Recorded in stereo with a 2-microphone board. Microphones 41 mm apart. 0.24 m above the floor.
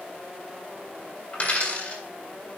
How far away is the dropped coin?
About 5 m.